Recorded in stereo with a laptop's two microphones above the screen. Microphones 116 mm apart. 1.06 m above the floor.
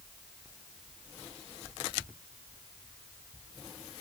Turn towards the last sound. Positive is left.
No sound to turn to.